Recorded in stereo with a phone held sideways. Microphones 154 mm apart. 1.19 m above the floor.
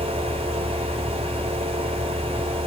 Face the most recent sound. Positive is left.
turn(degrees=-40)  # may be behind; listen again after turning